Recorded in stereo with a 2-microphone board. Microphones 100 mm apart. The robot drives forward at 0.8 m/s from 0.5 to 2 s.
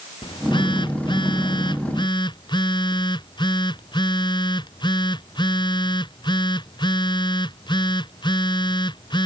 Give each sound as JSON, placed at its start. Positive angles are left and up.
{"t": 0.2, "sound": "a phone buzzing", "side_deg": 55}